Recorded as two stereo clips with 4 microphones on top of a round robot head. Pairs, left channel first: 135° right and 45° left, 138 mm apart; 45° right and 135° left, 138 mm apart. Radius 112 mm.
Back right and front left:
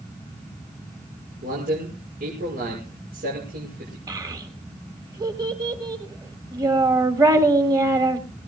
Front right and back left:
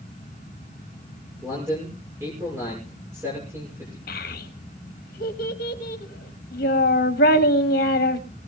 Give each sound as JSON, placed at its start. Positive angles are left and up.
{"t": 1.4, "sound": "a man speaking", "azimuth_deg": 65, "distance_m": 6.0}
{"t": 4.1, "sound": "a child speaking", "azimuth_deg": -25, "distance_m": 1.4}